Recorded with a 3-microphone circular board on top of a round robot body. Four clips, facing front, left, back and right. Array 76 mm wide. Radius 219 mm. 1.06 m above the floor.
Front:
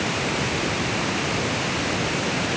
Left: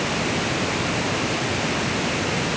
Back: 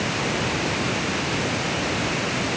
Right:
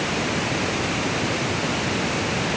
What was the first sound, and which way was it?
Only background noise.